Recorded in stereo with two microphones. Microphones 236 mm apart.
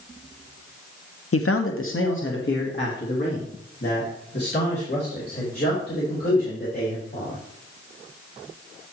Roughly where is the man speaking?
Left.